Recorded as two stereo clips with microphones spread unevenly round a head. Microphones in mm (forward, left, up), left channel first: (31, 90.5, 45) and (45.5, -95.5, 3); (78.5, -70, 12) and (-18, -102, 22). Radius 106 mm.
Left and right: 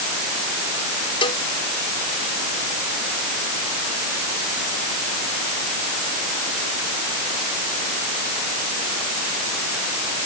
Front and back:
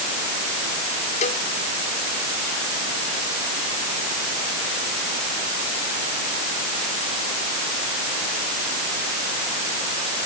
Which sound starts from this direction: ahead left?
A cowbell, at 1.2 s.